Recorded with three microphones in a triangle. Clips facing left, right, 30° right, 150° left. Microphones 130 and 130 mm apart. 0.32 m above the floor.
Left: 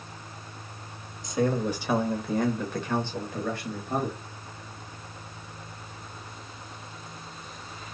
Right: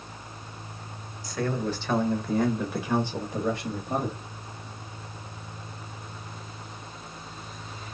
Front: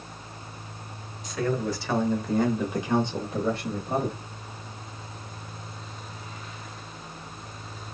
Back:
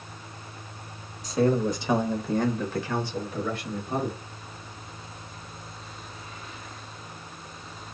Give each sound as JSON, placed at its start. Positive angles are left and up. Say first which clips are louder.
{"t": 1.2, "sound": "a man speaking", "louder": "left 3 dB, back 4 dB", "azimuth_deg": 140, "distance_m": 1.0}